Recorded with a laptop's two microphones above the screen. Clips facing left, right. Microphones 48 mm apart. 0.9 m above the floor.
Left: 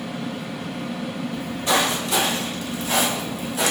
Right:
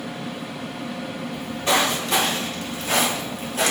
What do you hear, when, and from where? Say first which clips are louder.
1.3 s footsteps: right 1 dB; 30° right (ahead or behind), 1.5 m; by 3.7 s 40° right (ahead or behind), 1.2 m